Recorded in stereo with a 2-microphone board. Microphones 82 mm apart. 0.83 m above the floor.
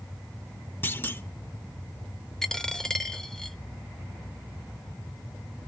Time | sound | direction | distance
0.8 | a clunk | 30° left (ahead or behind) | 0.7 m
2.4 | a dropped coin | 5° left (ahead or behind) | 0.7 m